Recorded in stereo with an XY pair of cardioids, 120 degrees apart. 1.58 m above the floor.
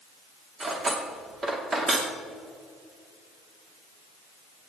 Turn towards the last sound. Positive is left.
turn(degrees=-30)